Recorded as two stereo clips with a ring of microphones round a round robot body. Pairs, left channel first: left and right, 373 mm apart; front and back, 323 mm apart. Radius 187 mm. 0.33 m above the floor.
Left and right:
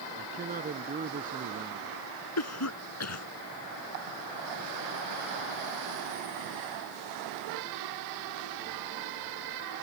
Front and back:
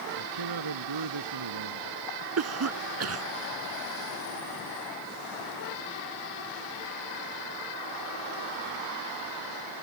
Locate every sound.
0.1 s a man speaking: 160° right
2.4 s a cough: 140° left